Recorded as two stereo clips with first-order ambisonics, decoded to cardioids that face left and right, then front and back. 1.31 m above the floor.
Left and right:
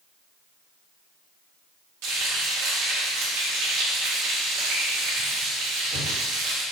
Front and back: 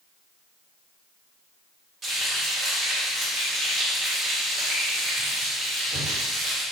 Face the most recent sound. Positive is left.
turn(degrees=-100)